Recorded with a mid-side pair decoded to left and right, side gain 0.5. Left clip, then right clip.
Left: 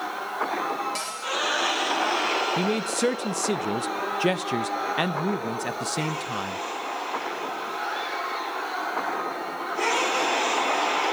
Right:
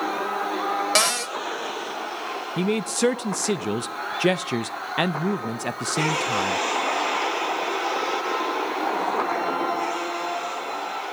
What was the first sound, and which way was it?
A cupboard door, 70° right.